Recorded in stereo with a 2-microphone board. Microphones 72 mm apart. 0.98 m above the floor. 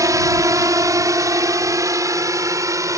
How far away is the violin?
No violin in this recording.